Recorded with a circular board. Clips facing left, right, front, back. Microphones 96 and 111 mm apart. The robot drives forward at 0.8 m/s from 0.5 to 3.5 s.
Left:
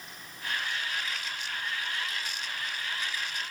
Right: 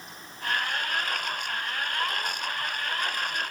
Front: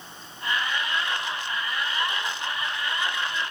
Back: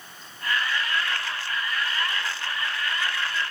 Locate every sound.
Only background noise.